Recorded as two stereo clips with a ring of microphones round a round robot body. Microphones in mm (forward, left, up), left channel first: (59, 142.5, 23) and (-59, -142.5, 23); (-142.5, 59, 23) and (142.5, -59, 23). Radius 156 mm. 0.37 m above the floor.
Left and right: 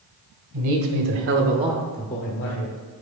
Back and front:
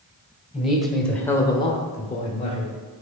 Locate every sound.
0.5 s a man speaking: 110° right, 2 m; by 2.7 s 95° left, 1.6 m